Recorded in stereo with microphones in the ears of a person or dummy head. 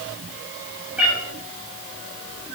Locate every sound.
1.0 s a cat meowing: 10° right (ahead or behind), 1.8 m